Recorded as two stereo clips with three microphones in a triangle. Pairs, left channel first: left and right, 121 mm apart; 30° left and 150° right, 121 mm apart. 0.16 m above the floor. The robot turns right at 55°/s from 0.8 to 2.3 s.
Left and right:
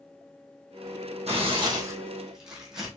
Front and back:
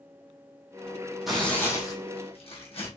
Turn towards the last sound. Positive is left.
turn(degrees=-5)